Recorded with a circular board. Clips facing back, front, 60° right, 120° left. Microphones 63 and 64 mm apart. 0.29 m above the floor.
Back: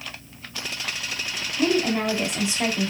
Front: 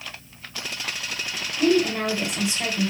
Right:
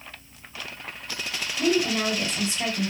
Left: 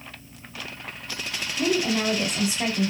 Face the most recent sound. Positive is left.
turn(degrees=170)